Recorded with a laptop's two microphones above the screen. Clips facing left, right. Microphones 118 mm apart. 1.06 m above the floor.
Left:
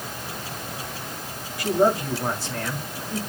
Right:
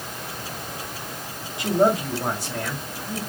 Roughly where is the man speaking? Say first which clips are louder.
Right 1 dB; right.